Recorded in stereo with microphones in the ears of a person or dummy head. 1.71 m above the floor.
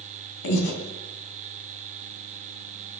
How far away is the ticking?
I don't hear ticking.